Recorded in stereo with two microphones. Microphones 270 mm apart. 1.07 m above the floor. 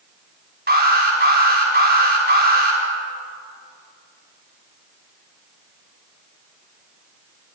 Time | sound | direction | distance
0.7 | an alarm | 35° right (ahead or behind) | 4.5 m